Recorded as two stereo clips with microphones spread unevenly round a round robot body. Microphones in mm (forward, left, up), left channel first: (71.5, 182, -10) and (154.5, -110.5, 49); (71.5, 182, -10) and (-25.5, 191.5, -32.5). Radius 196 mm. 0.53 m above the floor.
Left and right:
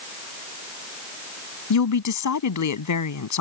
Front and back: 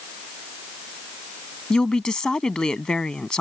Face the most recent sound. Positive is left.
turn(degrees=75)